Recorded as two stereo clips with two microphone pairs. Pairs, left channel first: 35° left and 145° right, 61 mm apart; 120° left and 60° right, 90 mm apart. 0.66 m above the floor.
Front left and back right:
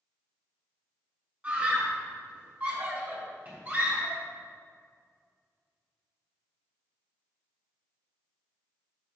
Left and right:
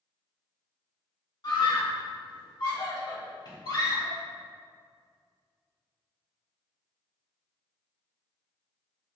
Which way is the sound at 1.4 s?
155° left.